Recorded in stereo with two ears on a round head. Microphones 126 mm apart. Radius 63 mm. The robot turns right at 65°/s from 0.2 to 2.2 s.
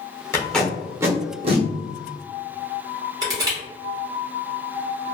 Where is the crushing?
25° right (ahead or behind), 1.2 m.